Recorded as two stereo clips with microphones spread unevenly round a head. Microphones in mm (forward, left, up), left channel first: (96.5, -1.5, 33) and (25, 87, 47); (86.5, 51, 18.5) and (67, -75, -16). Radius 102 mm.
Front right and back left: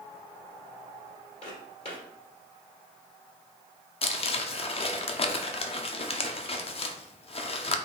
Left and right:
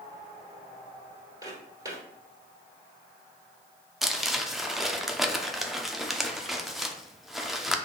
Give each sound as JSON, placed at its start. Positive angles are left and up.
{"t": 1.4, "sound": "footsteps", "azimuth_deg": -35, "distance_m": 1.8}
{"t": 4.0, "sound": "crumpling", "azimuth_deg": -10, "distance_m": 0.6}